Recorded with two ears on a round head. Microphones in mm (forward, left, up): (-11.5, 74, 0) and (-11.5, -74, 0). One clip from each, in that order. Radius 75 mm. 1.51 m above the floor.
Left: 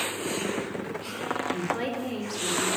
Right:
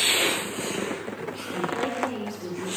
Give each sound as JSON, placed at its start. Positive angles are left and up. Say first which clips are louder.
{"t": 1.5, "sound": "a woman speaking", "louder": "right 2 dB", "side_deg": 25, "distance_m": 5.5}